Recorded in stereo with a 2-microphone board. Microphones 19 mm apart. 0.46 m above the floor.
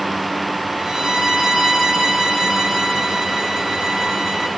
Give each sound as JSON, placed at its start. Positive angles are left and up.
{"t": 0.8, "sound": "a violin", "side_deg": -45, "distance_m": 3.5}